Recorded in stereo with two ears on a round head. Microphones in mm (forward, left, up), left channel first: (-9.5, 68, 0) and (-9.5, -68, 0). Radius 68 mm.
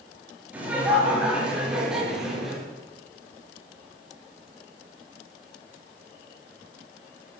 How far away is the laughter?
About 9.5 m.